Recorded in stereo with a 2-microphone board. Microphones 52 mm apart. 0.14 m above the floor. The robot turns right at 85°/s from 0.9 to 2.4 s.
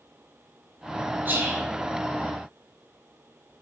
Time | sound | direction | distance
1.2 | whispering | 45° right | 1.9 m